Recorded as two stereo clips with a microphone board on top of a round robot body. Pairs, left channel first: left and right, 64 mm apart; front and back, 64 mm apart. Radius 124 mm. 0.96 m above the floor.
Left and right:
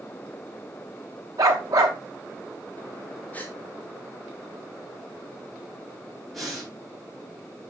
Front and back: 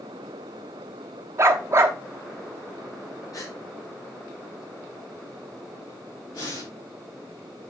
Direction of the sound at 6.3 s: Straight ahead.